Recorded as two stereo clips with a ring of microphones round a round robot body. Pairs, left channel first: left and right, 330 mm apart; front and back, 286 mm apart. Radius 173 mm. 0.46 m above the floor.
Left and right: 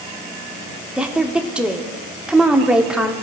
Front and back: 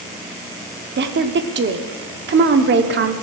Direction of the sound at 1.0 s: 175° right.